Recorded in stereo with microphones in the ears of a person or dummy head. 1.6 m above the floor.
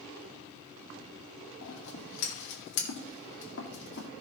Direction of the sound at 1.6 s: 65° left (ahead or behind).